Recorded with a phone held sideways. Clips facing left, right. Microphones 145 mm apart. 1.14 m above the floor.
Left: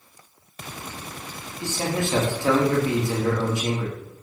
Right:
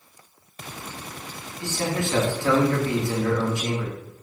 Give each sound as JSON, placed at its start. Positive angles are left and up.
{"t": 1.6, "sound": "a man speaking", "side_deg": 20, "distance_m": 1.9}